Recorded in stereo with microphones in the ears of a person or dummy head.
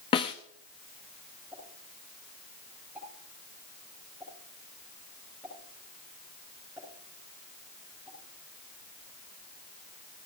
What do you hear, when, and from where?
0.1 s a snare drum: 25° left (ahead or behind), 0.7 m
1.5 s a pop: 5° right (ahead or behind), 9.5 m